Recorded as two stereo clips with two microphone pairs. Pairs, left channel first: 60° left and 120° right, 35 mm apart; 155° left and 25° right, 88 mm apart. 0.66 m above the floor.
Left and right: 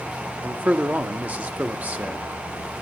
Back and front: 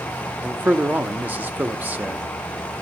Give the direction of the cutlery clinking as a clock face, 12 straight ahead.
I don't hear cutlery clinking.